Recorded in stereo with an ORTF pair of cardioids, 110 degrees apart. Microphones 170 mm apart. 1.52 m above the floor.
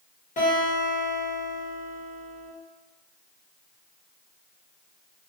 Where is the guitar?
45° left, 1.5 m.